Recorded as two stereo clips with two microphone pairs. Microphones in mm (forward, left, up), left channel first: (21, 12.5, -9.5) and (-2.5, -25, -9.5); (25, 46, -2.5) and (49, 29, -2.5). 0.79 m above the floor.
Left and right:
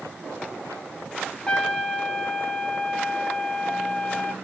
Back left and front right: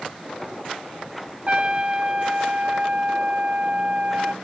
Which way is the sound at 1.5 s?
5° right.